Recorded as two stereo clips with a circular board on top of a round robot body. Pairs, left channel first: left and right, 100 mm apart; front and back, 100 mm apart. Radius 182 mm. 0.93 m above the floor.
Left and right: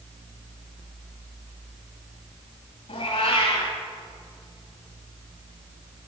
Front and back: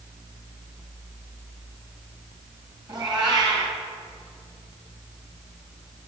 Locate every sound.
2.9 s a cat meowing: 130° left, 2.5 m